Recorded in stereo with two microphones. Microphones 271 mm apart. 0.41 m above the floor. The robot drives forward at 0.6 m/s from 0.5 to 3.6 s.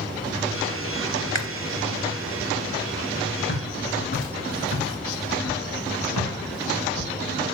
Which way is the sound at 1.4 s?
70° right (ahead or behind).